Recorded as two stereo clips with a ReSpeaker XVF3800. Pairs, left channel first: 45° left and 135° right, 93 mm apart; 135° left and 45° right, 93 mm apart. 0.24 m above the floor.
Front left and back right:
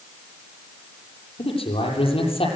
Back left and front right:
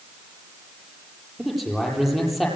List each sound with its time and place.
1.4 s a man speaking: 45° left, 8.5 m